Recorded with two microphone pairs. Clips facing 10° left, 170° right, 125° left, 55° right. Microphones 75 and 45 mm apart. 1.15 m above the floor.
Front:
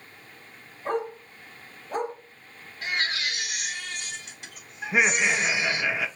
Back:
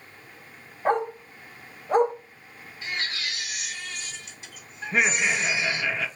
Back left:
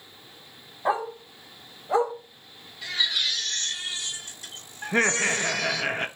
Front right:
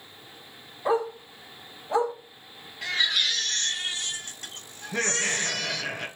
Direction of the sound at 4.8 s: 85° left.